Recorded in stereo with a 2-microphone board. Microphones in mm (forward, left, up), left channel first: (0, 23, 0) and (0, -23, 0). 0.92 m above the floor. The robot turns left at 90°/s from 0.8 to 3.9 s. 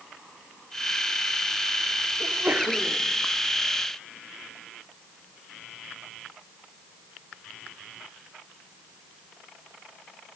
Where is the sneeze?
110° right, 3 m; by 3.0 s straight behind, 3 m.